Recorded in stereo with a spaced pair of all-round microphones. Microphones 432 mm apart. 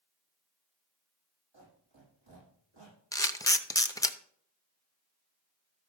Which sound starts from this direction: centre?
A camera shutter, at 3.1 s.